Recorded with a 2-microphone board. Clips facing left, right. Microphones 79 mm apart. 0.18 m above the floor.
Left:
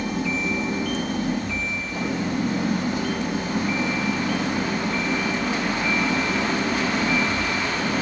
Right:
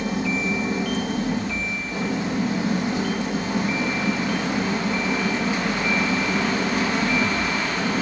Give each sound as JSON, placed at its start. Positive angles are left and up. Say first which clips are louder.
{"t": 0.0, "sound": "an engine running", "louder": "right 1 dB", "side_deg": -70, "distance_m": 7.0}